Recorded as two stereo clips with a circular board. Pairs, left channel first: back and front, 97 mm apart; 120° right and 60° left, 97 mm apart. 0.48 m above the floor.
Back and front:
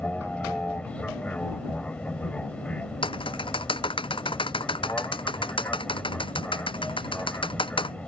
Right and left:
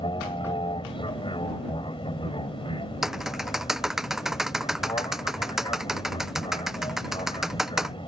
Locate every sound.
0.0 s an aircraft: 105° right
3.0 s typing on a keyboard: 145° left